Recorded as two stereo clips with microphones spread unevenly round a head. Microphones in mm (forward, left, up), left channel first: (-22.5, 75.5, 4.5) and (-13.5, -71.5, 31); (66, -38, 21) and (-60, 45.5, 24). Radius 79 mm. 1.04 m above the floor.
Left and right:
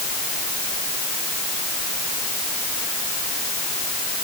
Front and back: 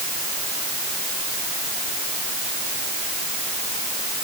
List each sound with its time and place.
Only background noise.